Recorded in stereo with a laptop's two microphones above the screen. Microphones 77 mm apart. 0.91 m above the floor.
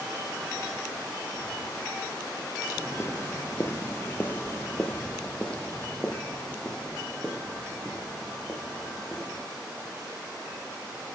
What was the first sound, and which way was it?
Footsteps, 35° left (ahead or behind).